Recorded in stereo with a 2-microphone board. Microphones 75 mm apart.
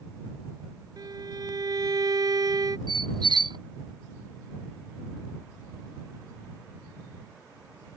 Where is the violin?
60° right (ahead or behind).